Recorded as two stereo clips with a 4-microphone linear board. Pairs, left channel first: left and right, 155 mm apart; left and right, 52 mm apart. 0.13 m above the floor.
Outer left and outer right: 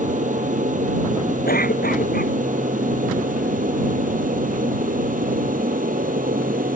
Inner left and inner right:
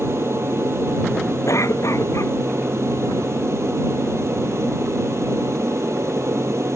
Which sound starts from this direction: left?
A cough, at 1.5 s.